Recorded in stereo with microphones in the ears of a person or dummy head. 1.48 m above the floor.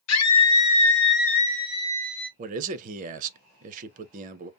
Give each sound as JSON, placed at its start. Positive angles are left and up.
{"t": 0.1, "sound": "a scream", "side_deg": 85, "distance_m": 0.9}
{"t": 2.4, "sound": "a man speaking", "side_deg": -40, "distance_m": 0.6}